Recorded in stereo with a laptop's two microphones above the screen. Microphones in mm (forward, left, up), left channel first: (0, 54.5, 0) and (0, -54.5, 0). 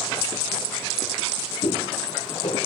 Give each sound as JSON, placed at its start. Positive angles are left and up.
{"t": 1.6, "sound": "footsteps", "side_deg": 70, "distance_m": 9.5}